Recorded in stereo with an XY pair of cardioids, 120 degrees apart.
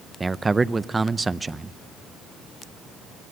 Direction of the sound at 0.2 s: 20° right.